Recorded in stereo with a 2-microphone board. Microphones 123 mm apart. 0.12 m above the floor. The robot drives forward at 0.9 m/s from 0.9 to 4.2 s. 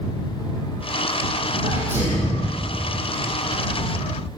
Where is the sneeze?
15° right (ahead or behind), 6 m; by 2.5 s 20° right (ahead or behind), 5 m.